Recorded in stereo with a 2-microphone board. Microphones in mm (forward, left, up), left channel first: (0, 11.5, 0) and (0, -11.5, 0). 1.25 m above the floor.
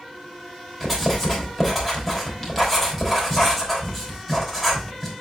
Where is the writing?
Centre (ahead or behind), 4 m.